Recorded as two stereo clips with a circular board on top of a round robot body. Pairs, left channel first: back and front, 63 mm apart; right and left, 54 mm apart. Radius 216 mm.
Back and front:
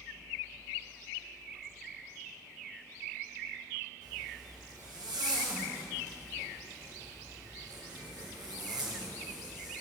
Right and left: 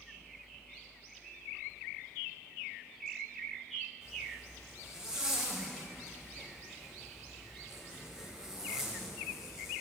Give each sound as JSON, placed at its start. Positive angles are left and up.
{"t": 4.0, "sound": "a zipper", "azimuth_deg": 15, "distance_m": 1.0}